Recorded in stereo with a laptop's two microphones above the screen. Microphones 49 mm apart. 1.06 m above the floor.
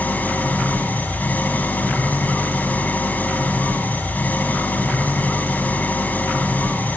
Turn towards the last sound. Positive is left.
turn(degrees=35)  # may be behind; listen again after turning